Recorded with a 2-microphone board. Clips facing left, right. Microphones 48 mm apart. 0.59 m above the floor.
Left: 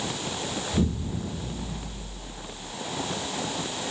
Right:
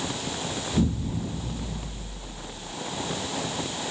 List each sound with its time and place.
0.7 s an explosion: 10° left (ahead or behind), 0.9 m